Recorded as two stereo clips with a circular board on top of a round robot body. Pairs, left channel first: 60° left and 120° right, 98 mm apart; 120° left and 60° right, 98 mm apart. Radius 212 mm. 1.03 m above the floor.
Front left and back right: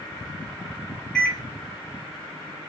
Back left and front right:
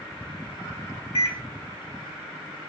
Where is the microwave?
145° left, 0.7 m.